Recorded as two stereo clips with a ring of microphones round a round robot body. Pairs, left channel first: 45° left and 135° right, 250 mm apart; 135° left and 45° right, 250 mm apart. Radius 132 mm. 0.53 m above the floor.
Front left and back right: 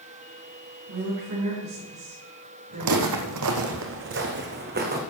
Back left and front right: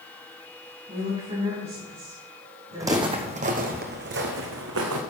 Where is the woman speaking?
110° right, 5.5 m.